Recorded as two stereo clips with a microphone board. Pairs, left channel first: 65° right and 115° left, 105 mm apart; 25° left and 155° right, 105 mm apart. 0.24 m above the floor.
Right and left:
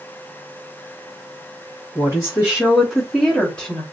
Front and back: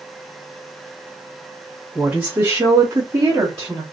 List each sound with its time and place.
1.9 s a woman speaking: 135° left, 1.4 m; by 3.8 s 135° right, 1.5 m